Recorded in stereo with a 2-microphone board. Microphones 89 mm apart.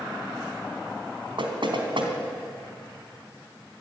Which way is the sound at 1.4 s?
65° right (ahead or behind).